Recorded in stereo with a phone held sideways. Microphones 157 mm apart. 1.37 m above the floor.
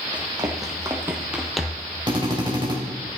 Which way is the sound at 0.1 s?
25° right (ahead or behind).